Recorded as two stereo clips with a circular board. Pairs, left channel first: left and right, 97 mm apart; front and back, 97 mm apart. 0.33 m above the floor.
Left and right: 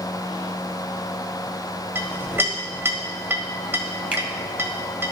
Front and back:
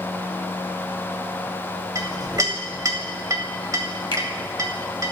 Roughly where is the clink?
Behind right.